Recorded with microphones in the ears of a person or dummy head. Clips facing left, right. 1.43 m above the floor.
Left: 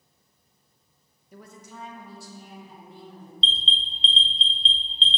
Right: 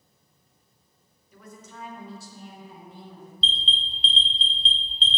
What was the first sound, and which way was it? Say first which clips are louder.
A woman speaking: left 1 dB; 45° left (ahead or behind).